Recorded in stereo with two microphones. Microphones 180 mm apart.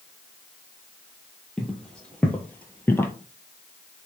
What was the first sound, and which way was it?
Footsteps, 5° left (ahead or behind).